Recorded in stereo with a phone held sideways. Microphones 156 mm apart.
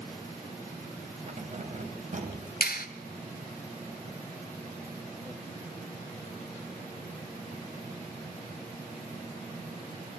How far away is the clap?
About 1.9 m.